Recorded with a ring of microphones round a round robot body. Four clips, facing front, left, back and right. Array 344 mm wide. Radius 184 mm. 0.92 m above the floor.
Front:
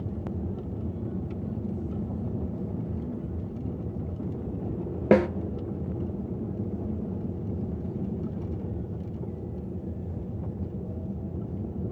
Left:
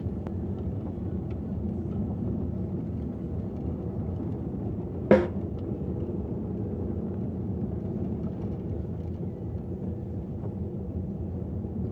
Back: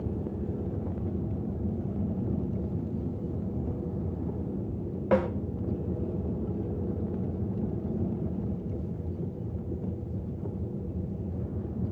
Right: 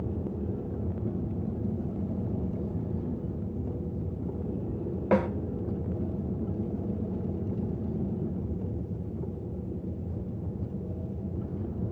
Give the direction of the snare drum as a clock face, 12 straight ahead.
11 o'clock.